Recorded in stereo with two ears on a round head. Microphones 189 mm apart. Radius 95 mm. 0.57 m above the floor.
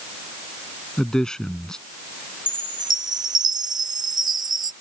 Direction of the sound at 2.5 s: 20° right (ahead or behind).